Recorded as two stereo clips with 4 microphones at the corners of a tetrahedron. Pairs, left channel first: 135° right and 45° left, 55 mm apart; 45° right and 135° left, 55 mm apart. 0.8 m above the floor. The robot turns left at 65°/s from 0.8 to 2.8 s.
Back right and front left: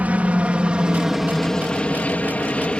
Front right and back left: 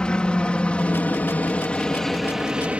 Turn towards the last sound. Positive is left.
turn(degrees=175)